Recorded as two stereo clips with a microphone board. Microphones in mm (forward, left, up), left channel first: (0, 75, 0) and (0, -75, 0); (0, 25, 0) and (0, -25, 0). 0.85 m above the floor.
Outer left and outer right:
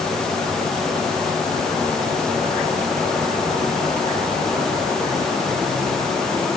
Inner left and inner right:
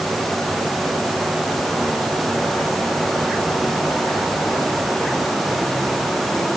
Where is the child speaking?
I don't hear a child speaking.